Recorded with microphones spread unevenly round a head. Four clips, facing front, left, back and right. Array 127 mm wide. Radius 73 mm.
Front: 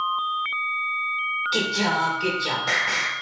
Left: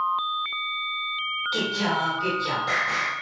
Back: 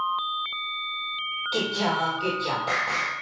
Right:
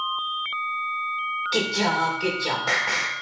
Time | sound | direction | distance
1.5 | singing | 120° right | 4 m